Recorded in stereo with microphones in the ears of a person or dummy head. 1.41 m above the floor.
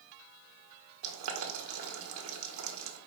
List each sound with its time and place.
1.0 s boiling: 85° right, 1.5 m